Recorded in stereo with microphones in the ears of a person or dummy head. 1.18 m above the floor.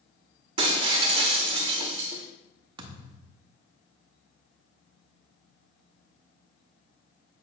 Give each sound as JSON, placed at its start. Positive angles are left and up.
{"t": 0.6, "sound": "breaking glass", "side_deg": -35, "distance_m": 1.0}
{"t": 2.8, "sound": "a thud", "side_deg": -25, "distance_m": 0.9}